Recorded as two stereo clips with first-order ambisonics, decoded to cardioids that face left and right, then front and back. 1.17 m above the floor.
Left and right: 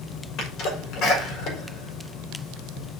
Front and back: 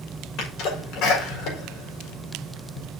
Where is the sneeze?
45° left, 4.5 m.